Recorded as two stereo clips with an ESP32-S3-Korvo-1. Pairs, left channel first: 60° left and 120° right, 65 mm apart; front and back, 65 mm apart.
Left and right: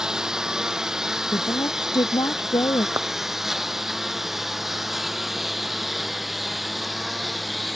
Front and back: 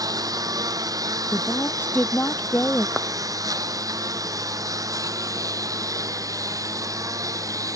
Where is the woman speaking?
60° left.